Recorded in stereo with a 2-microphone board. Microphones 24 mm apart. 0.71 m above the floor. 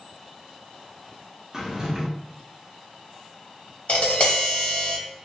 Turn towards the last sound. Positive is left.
turn(degrees=65)  # may be behind; listen again after turning